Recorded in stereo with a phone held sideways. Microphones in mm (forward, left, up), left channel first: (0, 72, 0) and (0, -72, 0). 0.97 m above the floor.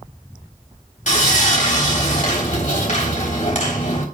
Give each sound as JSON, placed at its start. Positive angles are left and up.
{"t": 1.1, "sound": "sawing", "side_deg": 60, "distance_m": 3.0}